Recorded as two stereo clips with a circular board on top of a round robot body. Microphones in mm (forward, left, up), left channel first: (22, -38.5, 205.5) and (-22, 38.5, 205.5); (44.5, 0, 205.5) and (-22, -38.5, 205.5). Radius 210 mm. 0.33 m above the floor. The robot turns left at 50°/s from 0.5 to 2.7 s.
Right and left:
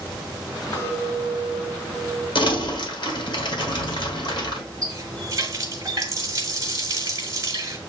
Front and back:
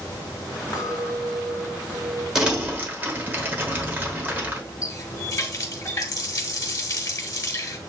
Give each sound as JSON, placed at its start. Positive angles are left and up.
{"t": 0.7, "sound": "a clink", "azimuth_deg": -15, "distance_m": 2.5}
{"t": 2.4, "sound": "crumpling", "azimuth_deg": -70, "distance_m": 1.9}
{"t": 4.8, "sound": "a running tap", "azimuth_deg": 70, "distance_m": 1.2}